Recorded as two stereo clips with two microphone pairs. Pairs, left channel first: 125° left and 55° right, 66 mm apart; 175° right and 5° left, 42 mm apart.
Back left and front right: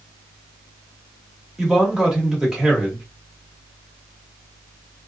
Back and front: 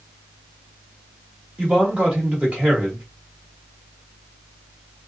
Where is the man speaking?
25° left, 1.1 m.